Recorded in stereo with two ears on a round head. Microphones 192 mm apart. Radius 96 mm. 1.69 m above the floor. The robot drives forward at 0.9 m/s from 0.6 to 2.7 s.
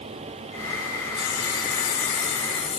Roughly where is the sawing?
Left.